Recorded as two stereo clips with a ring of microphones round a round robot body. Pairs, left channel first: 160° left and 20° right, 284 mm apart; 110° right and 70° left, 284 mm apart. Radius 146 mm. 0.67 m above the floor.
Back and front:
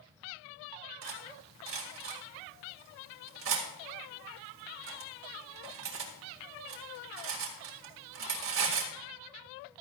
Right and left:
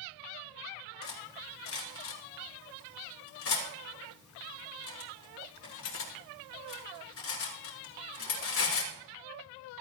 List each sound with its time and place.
1.0 s cutlery clinking: 70° right, 2 m